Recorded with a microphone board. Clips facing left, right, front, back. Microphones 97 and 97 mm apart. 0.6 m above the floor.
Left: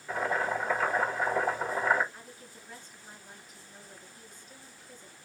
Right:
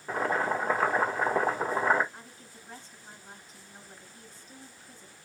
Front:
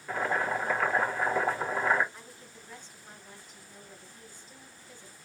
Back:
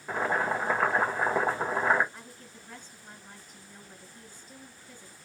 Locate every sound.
0.1 s boiling: 125° right, 1.6 m
2.1 s a woman speaking: 140° right, 4 m